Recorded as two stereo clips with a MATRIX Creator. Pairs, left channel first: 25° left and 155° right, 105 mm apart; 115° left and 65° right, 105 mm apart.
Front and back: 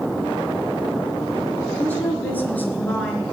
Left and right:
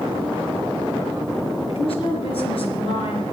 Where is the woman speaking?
95° left, 3.5 m.